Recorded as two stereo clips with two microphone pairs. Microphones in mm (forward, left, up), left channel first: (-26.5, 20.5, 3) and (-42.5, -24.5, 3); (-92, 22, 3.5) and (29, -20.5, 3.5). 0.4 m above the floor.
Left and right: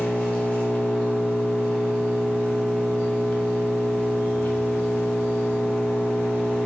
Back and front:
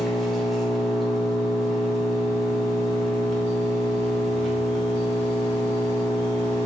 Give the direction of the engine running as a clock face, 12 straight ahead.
9 o'clock.